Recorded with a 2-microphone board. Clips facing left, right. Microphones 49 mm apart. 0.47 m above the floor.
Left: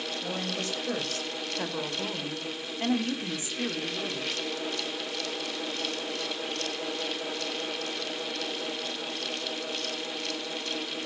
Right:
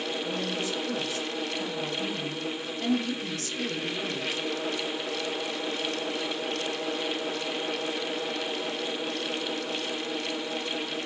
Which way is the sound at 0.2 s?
55° left (ahead or behind).